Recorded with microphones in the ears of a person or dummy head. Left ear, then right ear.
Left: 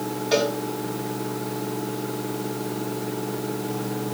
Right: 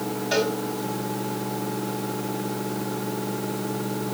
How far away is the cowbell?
About 5 m.